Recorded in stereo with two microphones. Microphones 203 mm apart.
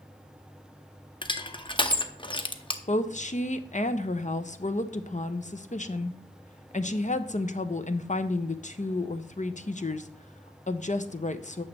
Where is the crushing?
25° left (ahead or behind), 0.6 m.